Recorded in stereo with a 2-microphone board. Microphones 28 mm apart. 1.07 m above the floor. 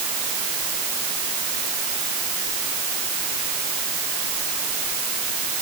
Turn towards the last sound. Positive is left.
No sound to turn to.